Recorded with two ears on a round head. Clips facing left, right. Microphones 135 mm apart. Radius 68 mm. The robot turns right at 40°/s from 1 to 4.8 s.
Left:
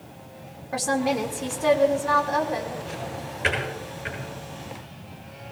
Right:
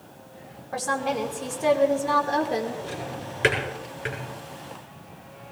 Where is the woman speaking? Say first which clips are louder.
Left 3 dB; 165° left, 3 m; by 2.7 s 125° right, 3 m.